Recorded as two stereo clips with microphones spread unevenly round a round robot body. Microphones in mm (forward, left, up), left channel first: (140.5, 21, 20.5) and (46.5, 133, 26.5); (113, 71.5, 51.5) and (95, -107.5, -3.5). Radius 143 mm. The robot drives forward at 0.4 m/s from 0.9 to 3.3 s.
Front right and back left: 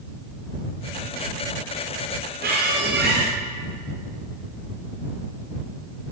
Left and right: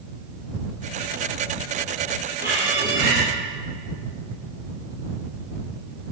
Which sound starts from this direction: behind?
A squeak, at 2.4 s.